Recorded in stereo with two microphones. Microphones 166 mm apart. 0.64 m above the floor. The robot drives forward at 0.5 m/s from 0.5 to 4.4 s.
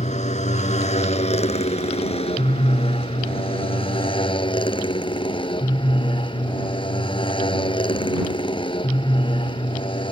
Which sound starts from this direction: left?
A motorcycle, at 0.0 s.